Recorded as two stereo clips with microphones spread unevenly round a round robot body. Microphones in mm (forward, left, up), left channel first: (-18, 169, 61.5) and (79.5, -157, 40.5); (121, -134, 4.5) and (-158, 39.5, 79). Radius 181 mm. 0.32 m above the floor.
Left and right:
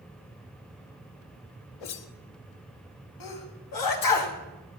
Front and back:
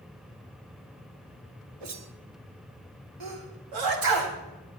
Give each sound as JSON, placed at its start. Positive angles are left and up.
{"t": 1.8, "sound": "a whoosh", "azimuth_deg": 100, "distance_m": 1.2}
{"t": 3.2, "sound": "a sneeze", "azimuth_deg": 125, "distance_m": 3.0}